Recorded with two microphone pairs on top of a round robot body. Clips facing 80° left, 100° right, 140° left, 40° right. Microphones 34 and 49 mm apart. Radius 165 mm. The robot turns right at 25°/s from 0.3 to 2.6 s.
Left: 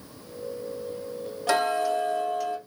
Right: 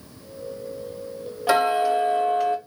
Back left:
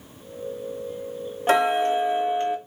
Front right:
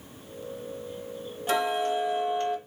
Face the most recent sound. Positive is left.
turn(degrees=-145)